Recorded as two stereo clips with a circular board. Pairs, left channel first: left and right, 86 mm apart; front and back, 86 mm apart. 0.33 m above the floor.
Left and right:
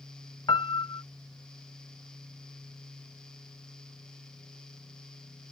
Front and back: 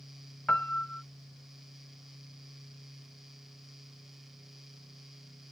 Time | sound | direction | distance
0.5 | a piano | 75° left | ?